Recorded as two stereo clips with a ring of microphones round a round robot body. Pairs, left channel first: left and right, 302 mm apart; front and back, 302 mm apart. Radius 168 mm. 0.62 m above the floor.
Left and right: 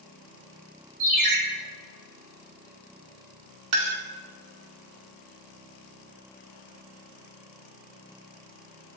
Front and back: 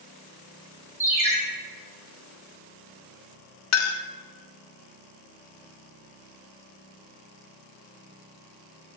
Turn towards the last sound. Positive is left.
turn(degrees=-40)